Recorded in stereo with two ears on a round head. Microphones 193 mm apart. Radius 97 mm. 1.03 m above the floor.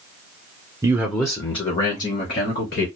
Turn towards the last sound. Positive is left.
turn(degrees=50)  # may be behind; listen again after turning